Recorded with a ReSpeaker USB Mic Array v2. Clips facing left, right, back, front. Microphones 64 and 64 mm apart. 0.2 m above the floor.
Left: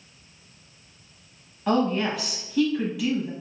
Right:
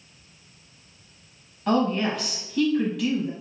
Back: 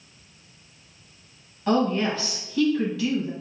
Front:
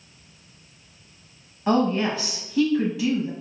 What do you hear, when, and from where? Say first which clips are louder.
1.7 s a woman speaking: even, front 1 dB; 15° left, 1.0 m